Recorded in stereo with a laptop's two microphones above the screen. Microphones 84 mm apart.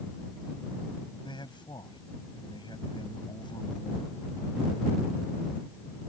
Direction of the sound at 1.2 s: 65° left (ahead or behind).